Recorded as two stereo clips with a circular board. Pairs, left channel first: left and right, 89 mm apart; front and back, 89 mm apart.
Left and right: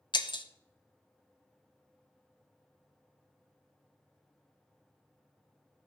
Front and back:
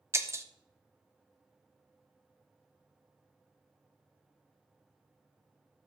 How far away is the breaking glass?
About 0.7 m.